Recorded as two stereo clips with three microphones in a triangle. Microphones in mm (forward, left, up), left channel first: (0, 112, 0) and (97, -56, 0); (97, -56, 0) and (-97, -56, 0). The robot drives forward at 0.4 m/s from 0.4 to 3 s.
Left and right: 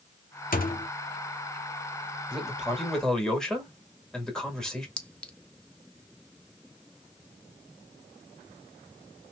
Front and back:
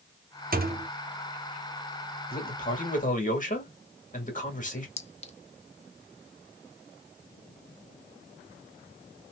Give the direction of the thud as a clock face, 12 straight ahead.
7 o'clock.